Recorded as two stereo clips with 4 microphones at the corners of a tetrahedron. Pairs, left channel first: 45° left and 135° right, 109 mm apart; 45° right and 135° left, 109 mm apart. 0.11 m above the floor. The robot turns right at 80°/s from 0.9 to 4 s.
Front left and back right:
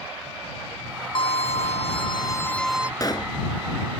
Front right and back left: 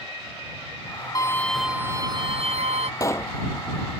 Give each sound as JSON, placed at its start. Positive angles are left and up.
{"t": 1.1, "sound": "a violin", "azimuth_deg": 10}
{"t": 3.0, "sound": "a pop", "azimuth_deg": 0}